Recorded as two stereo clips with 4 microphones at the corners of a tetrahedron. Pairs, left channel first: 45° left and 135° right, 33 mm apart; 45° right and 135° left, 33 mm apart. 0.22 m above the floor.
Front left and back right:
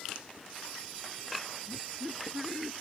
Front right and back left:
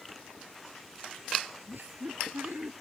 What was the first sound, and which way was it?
Laughter, 140° left.